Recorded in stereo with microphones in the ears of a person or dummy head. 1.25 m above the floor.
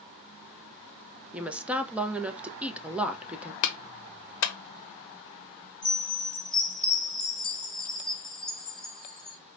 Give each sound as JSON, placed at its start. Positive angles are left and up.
{"t": 1.3, "sound": "a woman speaking", "side_deg": -5, "distance_m": 0.5}
{"t": 3.6, "sound": "a clap", "side_deg": 70, "distance_m": 0.6}
{"t": 5.8, "sound": "a chime", "side_deg": 0, "distance_m": 1.6}